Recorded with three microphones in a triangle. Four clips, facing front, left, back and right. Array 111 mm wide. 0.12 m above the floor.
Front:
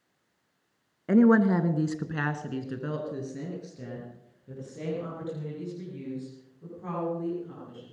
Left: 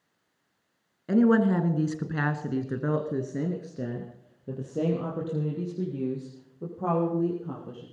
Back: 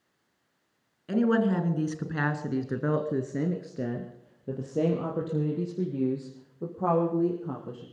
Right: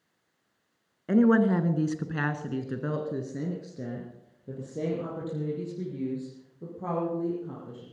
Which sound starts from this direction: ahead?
A woman speaking, at 1.1 s.